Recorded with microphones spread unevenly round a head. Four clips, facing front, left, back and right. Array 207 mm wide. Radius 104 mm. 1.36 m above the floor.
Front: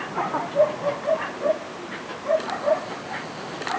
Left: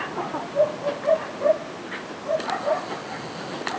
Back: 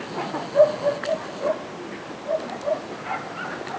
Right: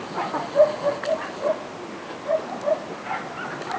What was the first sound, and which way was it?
Only background noise.